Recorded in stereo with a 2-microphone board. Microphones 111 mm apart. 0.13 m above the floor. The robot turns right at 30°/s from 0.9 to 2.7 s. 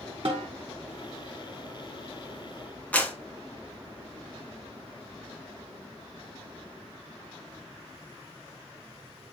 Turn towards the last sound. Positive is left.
turn(degrees=15)  # may be behind; listen again after turning